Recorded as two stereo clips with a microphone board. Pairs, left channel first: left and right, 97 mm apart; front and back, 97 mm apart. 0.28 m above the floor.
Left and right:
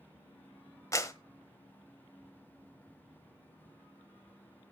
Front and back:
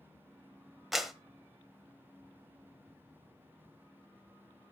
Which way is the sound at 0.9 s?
90° left.